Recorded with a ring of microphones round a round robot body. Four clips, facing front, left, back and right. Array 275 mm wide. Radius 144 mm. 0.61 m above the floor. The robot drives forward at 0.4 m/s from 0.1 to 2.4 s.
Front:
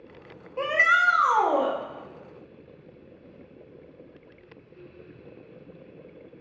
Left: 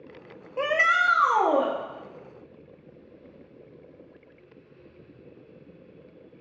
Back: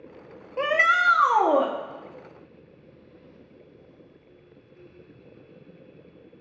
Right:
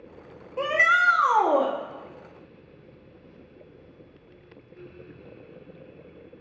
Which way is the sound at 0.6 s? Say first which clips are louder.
Right 1 dB, back 1 dB; 145° left.